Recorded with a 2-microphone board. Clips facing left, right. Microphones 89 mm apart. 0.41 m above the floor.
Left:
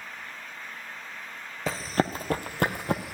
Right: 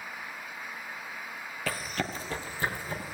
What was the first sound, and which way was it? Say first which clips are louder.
Running footsteps: left 7 dB; 20° left (ahead or behind).